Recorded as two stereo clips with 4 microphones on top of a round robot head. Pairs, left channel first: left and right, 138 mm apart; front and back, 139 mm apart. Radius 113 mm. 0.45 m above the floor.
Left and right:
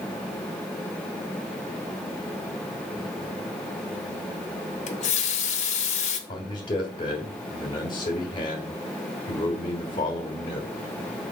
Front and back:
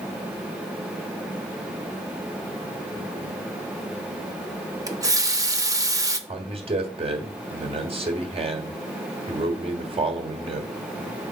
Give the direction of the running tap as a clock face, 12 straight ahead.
8 o'clock.